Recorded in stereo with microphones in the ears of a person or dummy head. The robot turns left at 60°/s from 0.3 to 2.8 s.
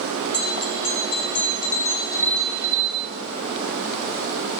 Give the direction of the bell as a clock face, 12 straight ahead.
8 o'clock.